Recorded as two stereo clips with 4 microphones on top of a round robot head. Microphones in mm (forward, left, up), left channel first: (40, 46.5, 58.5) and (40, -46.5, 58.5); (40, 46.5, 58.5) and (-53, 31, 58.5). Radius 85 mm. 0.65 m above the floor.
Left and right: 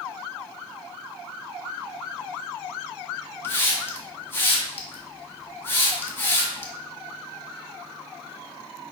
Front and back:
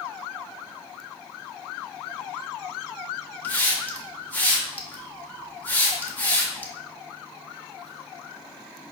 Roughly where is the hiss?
Ahead left.